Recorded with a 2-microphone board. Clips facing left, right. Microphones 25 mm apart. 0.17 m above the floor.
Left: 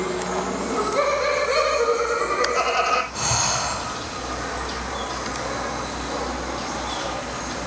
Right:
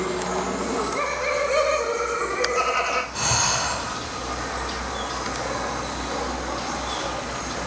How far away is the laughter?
About 7.5 m.